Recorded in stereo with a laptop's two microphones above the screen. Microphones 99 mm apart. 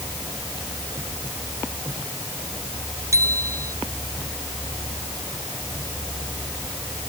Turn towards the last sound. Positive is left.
turn(degrees=-35)  # may be behind; listen again after turning